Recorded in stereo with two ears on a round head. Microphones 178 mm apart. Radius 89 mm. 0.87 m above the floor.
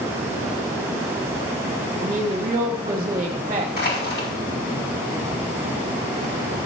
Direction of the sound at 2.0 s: 25° right (ahead or behind).